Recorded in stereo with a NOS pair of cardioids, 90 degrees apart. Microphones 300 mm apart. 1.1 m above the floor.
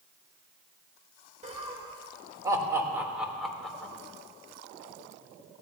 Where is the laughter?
25° right, 3.5 m; by 3.9 s 5° left, 3.5 m.